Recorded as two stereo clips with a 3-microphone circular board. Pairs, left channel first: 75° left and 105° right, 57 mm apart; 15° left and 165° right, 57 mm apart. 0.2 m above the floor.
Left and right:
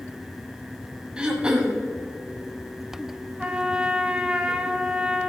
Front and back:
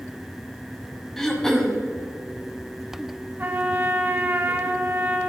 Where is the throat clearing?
60° right, 1.3 m.